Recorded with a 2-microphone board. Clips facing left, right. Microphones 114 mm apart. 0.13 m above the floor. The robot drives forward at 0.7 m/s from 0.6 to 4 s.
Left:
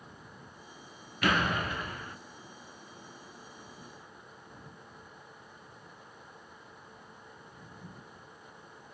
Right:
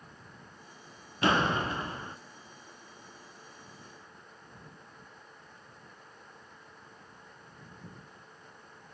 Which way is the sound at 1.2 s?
25° right (ahead or behind).